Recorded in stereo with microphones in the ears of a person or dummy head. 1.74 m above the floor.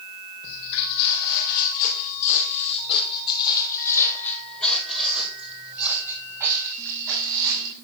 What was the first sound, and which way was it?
Footsteps, 65° left (ahead or behind).